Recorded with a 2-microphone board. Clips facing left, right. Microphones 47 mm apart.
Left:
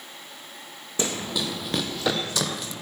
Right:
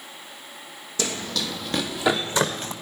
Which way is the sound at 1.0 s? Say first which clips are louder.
Even; 30° left (ahead or behind).